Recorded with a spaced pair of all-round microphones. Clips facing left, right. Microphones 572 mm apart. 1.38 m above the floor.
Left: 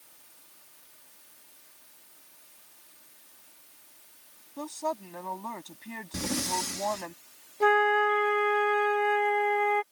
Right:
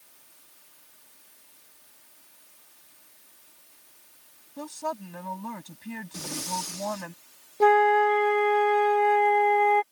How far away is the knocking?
No knocking in this recording.